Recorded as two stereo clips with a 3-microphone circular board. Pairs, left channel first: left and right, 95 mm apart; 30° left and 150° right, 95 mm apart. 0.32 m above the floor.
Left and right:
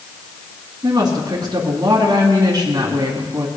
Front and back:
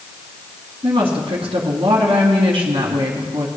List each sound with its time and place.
0.8 s a woman speaking: 135° right, 2.5 m